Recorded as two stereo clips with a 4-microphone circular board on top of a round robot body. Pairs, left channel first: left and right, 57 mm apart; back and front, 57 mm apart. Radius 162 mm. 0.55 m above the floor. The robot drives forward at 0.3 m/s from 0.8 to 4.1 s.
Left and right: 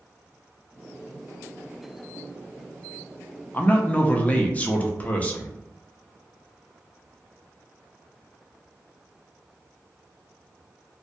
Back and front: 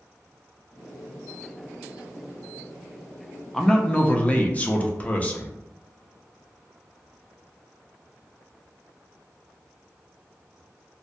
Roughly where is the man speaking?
Left.